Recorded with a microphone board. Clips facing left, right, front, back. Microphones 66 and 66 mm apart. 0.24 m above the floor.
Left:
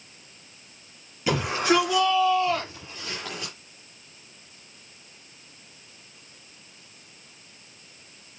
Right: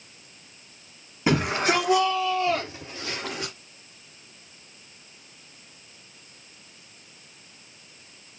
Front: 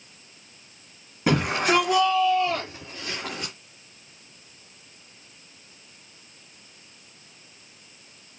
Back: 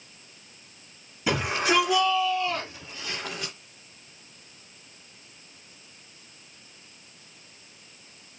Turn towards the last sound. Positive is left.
turn(degrees=-45)